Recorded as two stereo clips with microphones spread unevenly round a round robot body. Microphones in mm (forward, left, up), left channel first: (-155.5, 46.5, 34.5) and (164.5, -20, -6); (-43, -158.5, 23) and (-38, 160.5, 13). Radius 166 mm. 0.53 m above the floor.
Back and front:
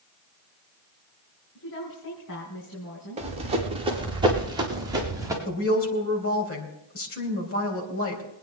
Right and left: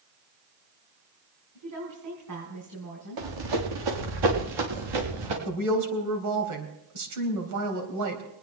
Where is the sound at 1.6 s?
120° left, 4.5 m.